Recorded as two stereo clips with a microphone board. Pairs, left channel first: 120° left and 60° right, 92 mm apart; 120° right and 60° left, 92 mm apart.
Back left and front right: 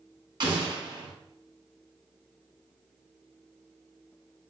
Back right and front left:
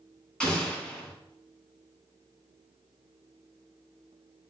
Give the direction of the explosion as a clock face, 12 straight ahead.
1 o'clock.